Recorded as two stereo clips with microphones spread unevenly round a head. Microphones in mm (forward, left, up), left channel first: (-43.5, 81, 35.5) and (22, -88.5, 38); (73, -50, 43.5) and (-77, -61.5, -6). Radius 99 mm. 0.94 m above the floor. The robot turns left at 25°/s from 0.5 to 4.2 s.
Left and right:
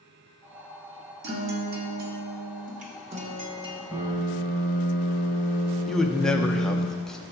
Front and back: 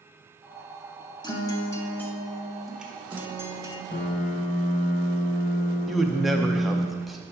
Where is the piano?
5° right, 1.5 m; by 6.9 s 15° right, 1.5 m.